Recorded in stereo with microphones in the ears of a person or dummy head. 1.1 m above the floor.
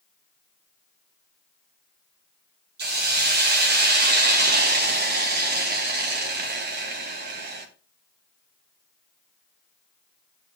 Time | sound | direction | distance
2.8 | a hiss | 45° right (ahead or behind) | 0.9 m